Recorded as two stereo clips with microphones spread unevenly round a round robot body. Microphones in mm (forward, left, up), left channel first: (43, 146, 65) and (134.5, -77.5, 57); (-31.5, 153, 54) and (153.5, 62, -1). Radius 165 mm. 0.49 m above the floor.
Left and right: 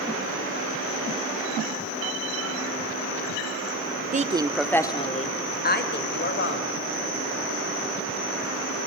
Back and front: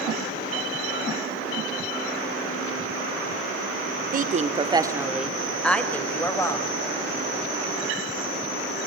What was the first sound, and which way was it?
A woman speaking, 20° right.